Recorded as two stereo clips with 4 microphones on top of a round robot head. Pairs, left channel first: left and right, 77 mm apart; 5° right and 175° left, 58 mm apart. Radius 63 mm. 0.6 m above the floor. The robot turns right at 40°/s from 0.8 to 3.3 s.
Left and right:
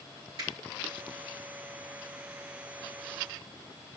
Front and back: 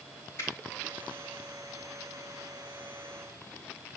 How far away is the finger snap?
About 4 m.